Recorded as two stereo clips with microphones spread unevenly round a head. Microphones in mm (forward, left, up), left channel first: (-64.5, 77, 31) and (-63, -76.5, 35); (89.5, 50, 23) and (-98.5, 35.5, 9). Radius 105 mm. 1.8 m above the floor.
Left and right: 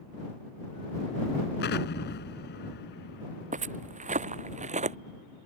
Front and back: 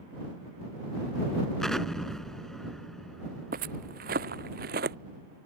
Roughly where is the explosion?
Left.